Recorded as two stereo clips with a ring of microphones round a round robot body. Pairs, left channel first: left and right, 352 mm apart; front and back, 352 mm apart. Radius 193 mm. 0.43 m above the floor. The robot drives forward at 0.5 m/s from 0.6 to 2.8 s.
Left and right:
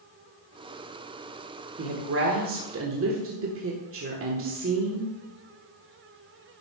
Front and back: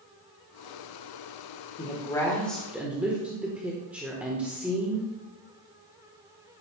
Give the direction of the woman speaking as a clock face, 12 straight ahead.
2 o'clock.